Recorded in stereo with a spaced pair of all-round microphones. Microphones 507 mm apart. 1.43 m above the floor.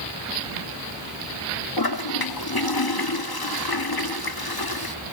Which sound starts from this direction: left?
A toilet flushing, at 1.8 s.